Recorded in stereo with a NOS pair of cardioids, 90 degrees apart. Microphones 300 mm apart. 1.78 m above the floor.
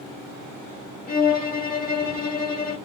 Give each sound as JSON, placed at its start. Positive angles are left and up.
{"t": 1.1, "sound": "a violin", "azimuth_deg": 30, "distance_m": 1.4}